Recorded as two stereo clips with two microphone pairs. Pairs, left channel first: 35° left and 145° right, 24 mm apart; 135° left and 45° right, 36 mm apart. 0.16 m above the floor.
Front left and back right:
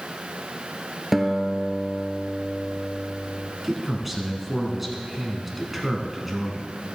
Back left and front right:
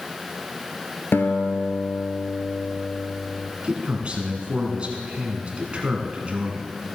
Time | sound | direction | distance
1.1 | a guitar | 135° left | 0.8 m
3.6 | a man speaking | 70° right | 1.9 m